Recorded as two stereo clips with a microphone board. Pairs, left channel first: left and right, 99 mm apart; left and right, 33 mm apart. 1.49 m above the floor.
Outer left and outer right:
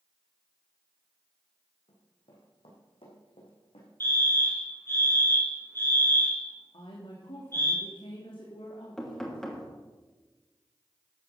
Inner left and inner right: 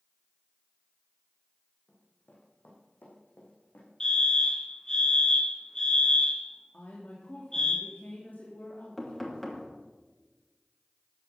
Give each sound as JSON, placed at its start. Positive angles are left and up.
{"t": 1.9, "sound": "running footsteps", "side_deg": 70, "distance_m": 4.5}
{"t": 4.0, "sound": "a fire alarm", "side_deg": 25, "distance_m": 3.0}
{"t": 6.7, "sound": "a woman speaking", "side_deg": 65, "distance_m": 2.5}
{"t": 9.0, "sound": "knocking", "side_deg": 5, "distance_m": 2.5}